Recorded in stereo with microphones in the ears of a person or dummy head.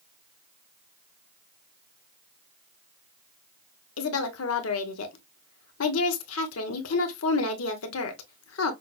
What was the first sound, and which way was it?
A woman speaking, 75° left (ahead or behind).